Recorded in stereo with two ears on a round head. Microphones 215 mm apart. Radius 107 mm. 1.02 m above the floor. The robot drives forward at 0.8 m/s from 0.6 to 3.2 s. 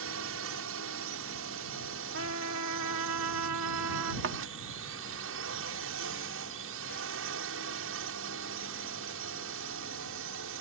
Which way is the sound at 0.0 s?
60° right (ahead or behind).